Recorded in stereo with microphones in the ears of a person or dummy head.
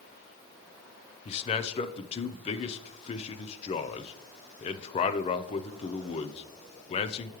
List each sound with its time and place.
1.2 s a man speaking: 35° left (ahead or behind), 0.7 m